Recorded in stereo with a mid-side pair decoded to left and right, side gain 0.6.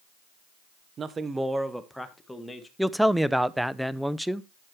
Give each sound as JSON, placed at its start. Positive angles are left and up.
{"t": 1.0, "sound": "a man speaking", "azimuth_deg": -40, "distance_m": 1.0}
{"t": 2.8, "sound": "a man speaking", "azimuth_deg": -5, "distance_m": 0.7}